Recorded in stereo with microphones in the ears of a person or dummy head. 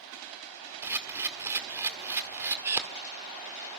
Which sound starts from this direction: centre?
A camera shutter, at 0.8 s.